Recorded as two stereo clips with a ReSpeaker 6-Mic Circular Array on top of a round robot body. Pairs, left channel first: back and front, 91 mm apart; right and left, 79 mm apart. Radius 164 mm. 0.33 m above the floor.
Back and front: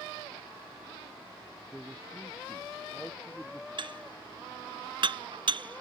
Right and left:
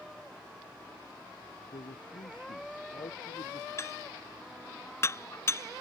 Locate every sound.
1.7 s a man speaking: 85° right
3.8 s dishes clattering: 35° right